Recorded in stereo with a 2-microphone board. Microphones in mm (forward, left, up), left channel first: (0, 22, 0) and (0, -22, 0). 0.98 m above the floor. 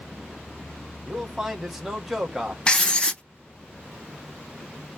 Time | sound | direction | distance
1.1 | a man speaking | 10° right (ahead or behind) | 1.2 m
2.7 | writing | 25° left (ahead or behind) | 0.6 m